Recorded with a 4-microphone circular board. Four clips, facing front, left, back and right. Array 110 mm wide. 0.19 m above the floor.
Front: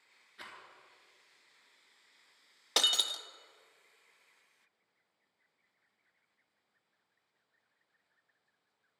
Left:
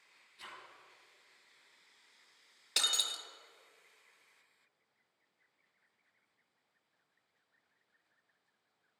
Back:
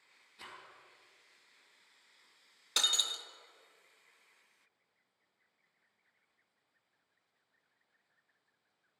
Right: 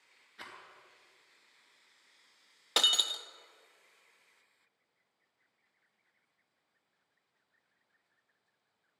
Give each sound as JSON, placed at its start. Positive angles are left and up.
{"t": 0.4, "sound": "a rattle", "azimuth_deg": -50, "distance_m": 3.5}
{"t": 2.8, "sound": "breaking glass", "azimuth_deg": -35, "distance_m": 0.7}